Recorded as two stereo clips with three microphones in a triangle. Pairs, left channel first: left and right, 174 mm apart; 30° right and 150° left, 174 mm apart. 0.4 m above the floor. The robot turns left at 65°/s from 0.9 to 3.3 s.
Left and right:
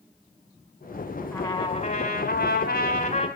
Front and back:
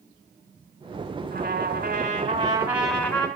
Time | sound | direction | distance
1.3 | a trumpet | 165° left | 3 m